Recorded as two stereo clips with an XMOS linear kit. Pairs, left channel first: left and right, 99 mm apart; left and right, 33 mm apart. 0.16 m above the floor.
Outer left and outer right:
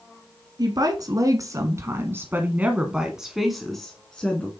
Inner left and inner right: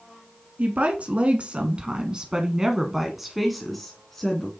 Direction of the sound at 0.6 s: 45° right (ahead or behind).